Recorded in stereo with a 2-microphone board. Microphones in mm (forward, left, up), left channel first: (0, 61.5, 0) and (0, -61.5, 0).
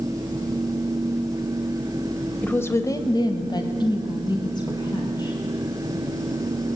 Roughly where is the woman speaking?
Centre.